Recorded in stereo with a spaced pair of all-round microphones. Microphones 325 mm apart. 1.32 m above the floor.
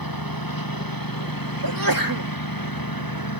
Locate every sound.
0.0 s a lawn mower: 75° left (ahead or behind)
1.6 s a sneeze: 75° right (ahead or behind)